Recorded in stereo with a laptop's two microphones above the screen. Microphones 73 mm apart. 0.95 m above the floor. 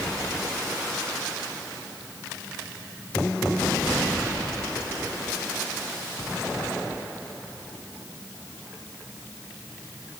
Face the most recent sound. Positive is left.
No sound to turn to.